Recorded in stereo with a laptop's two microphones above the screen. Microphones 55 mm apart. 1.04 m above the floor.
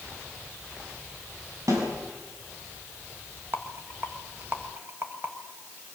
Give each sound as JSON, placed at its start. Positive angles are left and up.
{"t": 1.7, "sound": "a snare drum", "side_deg": -85, "distance_m": 6.0}
{"t": 3.5, "sound": "a rattle", "side_deg": -45, "distance_m": 1.7}